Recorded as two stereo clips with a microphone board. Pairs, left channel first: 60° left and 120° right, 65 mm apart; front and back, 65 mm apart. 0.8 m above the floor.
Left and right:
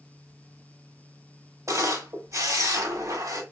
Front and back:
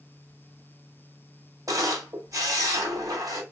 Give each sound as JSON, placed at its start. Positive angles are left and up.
{"t": 1.7, "sound": "a camera shutter", "azimuth_deg": -150, "distance_m": 1.4}